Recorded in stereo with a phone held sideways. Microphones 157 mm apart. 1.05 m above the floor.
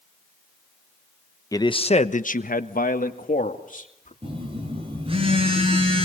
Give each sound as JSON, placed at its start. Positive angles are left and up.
{"t": 1.5, "sound": "a man speaking", "side_deg": 20, "distance_m": 1.0}
{"t": 4.2, "sound": "a phone buzzing", "side_deg": -35, "distance_m": 9.0}